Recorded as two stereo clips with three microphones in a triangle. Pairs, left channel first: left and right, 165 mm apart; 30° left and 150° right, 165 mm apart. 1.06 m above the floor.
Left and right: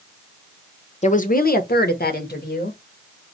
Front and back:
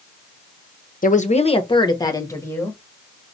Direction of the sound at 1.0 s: 50° left.